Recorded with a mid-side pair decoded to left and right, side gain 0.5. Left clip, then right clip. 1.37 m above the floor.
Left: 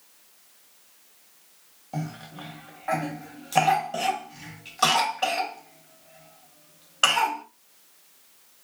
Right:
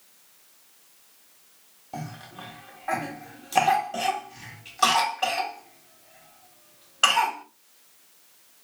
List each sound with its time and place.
1.9 s a cough: 10° left, 1.6 m